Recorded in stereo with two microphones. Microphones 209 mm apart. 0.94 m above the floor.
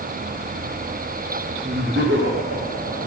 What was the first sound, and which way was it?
Laughter, 55° right (ahead or behind).